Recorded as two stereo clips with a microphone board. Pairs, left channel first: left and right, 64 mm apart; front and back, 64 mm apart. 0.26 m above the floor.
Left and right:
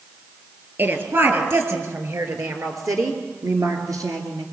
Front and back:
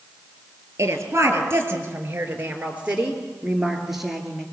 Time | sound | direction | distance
0.8 | a woman speaking | 140° right | 4.5 m